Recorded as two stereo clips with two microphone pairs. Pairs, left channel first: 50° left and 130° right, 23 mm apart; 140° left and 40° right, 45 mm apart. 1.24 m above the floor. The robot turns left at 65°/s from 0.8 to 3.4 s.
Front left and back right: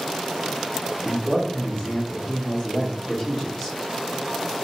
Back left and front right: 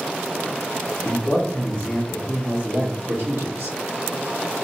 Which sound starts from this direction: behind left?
A man speaking, at 1.0 s.